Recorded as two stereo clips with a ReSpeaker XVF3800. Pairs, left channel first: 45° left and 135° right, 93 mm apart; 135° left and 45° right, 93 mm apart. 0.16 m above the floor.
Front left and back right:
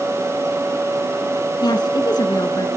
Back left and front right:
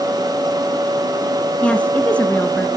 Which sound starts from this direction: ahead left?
A woman speaking, at 1.6 s.